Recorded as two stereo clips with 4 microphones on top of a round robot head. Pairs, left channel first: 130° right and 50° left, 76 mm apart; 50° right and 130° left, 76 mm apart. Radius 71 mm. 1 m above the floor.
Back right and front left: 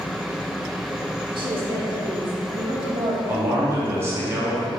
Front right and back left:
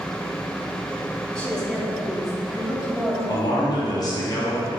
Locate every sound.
1.4 s a woman speaking: 25° left, 2.5 m; by 3.2 s 50° left, 2.5 m
3.3 s a man speaking: 10° right, 1.9 m